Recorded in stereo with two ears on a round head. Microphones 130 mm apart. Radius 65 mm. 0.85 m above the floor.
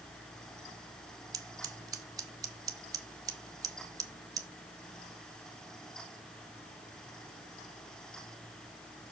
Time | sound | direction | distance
1.3 | scissors | 25° right (ahead or behind) | 1.1 m